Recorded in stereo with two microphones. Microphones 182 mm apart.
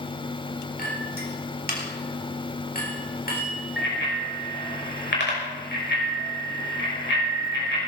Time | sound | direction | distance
0.8 | a clink | 55° left (ahead or behind) | 3.5 m
3.8 | a bicycle bell | 85° left | 5.5 m